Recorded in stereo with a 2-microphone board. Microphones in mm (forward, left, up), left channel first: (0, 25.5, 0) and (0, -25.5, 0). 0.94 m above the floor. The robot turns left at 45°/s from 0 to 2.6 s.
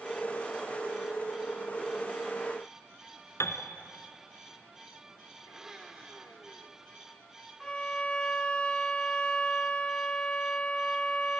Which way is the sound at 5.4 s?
10° right (ahead or behind).